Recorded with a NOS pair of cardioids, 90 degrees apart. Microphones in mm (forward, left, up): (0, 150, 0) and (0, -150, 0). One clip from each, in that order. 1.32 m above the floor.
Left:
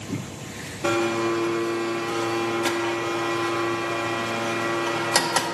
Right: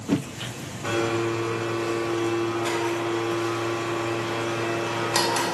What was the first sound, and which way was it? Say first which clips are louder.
A blender: left 2 dB; 50° left.